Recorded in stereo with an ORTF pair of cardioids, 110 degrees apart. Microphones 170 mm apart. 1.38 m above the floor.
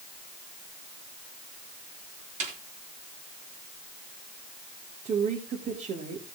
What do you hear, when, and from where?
2.4 s a snare drum: 50° right, 3.5 m
5.0 s a woman speaking: 50° right, 3 m